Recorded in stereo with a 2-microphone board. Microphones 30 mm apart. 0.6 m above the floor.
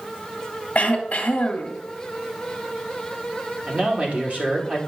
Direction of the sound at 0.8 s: 50° left (ahead or behind).